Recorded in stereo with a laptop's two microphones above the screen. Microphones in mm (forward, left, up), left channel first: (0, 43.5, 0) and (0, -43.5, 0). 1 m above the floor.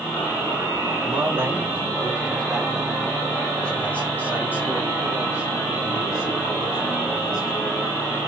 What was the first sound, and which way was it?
A man speaking, 35° right (ahead or behind).